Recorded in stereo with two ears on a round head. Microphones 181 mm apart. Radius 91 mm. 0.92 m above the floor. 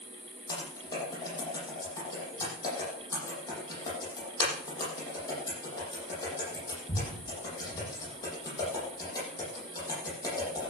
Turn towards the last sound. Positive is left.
turn(degrees=20)  # may be behind; listen again after turning